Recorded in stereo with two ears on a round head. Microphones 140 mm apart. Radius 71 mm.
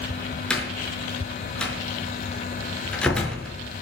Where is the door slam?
5° left (ahead or behind), 5.5 m.